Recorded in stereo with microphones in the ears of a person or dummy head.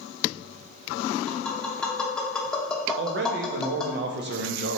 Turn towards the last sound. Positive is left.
turn(degrees=-55)  # may be behind; listen again after turning